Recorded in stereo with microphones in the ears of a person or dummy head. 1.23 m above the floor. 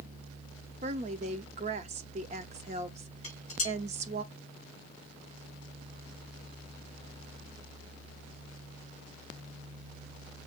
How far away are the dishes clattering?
About 4 m.